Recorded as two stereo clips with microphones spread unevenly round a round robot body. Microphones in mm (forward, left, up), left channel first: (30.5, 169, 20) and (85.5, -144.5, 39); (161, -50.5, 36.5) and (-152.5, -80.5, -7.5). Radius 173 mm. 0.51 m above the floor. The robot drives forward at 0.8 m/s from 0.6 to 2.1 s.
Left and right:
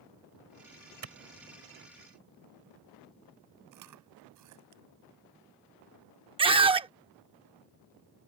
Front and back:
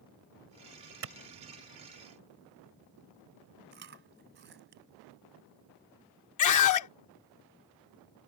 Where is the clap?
130° right; by 1.1 s 135° right.